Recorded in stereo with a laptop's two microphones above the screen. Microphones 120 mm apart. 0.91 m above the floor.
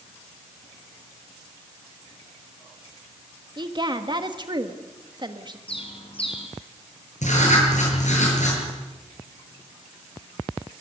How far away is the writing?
About 8 m.